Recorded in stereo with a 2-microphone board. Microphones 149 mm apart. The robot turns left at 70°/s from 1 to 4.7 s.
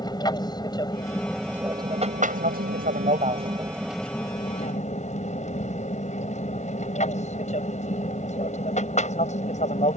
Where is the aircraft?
25° left; by 10.0 s 130° left.